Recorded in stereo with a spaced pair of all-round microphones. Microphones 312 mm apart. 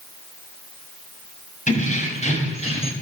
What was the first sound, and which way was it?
Keys jangling, 25° left (ahead or behind).